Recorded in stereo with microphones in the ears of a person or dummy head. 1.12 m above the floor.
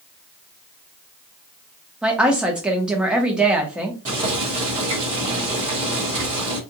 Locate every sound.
2.0 s a woman speaking: 5° right (ahead or behind), 0.9 m
4.0 s boiling: 40° right (ahead or behind), 1.5 m